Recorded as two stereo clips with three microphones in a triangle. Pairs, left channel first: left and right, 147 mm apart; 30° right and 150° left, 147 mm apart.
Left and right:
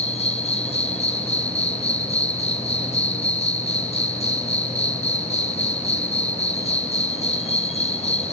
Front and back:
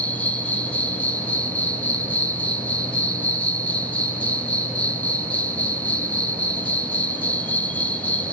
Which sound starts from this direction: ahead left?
An insect, at 0.0 s.